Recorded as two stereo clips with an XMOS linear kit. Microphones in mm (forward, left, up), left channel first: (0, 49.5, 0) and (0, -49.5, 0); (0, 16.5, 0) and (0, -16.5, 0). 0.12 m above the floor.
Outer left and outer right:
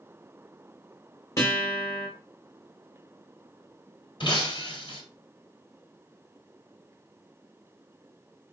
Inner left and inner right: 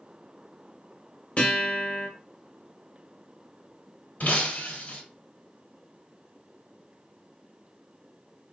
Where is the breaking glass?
55° left (ahead or behind), 1.4 m.